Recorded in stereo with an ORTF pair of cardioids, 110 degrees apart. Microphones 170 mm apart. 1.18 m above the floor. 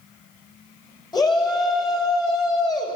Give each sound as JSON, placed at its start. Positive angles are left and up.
{"t": 1.1, "sound": "a shout", "azimuth_deg": 25, "distance_m": 3.5}